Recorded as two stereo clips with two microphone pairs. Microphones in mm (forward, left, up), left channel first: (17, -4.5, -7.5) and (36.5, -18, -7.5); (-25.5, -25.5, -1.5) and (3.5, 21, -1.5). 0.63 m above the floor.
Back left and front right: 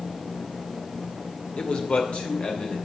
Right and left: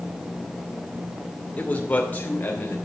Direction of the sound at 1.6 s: Straight behind.